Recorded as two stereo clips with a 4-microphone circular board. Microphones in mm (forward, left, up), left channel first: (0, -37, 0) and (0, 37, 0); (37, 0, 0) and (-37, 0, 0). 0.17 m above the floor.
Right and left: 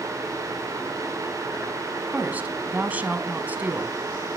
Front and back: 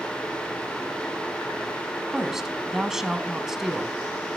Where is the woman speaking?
105° left, 1.0 m.